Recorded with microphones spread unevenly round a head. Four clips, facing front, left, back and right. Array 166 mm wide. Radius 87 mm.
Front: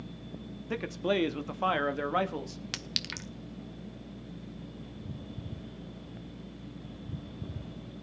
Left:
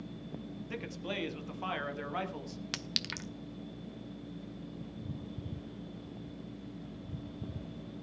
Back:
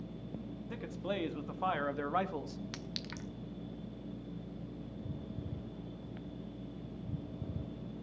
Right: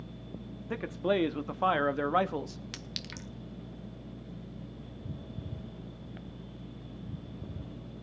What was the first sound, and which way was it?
A man speaking, 45° right.